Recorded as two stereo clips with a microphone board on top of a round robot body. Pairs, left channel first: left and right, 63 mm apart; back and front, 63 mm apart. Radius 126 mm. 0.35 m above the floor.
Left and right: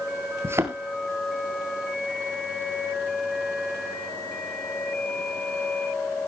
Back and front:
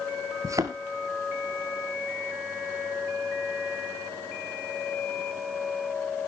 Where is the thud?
40° right, 1.1 m.